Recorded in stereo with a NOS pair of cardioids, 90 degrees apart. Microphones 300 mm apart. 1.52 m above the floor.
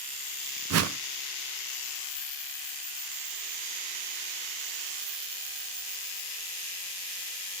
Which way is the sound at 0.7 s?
55° right.